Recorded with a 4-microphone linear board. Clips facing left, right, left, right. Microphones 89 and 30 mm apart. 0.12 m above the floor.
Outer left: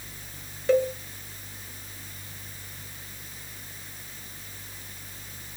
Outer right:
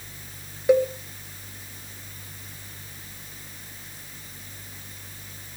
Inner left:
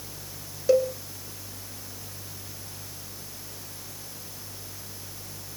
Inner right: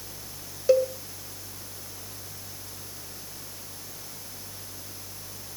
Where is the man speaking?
No man speaking in this recording.